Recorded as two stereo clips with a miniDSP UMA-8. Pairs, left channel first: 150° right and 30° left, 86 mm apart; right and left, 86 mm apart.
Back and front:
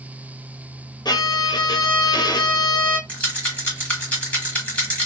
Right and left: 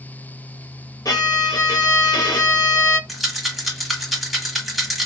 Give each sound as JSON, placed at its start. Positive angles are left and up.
{"t": 1.1, "sound": "a violin", "azimuth_deg": -130, "distance_m": 0.7}
{"t": 3.1, "sound": "a rattle", "azimuth_deg": 180, "distance_m": 1.1}